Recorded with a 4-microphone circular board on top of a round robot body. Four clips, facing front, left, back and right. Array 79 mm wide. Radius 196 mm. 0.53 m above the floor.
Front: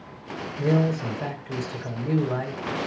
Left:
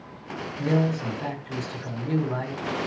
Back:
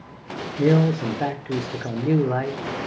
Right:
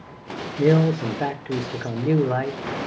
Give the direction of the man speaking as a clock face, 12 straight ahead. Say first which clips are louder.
Right 6 dB, back 4 dB; 4 o'clock.